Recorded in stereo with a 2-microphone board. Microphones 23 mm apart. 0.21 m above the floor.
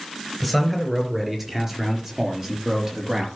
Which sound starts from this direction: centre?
A man speaking, at 0.4 s.